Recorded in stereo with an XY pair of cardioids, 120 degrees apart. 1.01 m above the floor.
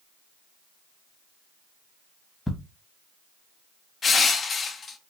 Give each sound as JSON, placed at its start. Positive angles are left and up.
{"t": 2.5, "sound": "ticking", "azimuth_deg": 10, "distance_m": 1.1}
{"t": 4.0, "sound": "crushing", "azimuth_deg": 35, "distance_m": 0.7}